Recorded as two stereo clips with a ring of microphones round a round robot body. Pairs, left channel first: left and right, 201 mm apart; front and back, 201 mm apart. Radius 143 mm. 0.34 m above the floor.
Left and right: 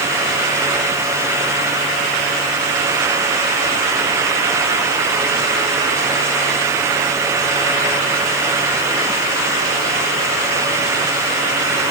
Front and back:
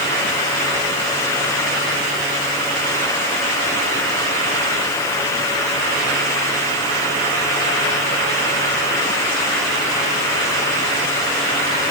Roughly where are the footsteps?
No footsteps in this recording.